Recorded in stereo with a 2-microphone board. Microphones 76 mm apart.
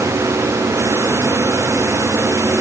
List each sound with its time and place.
Only background noise.